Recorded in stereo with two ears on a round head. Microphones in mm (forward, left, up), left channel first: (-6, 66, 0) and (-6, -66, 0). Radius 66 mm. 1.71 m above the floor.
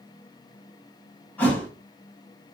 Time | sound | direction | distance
1.4 | a thud | 10° left (ahead or behind) | 3 m